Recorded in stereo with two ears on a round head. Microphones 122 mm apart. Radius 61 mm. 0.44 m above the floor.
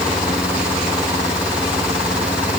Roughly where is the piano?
No piano in this recording.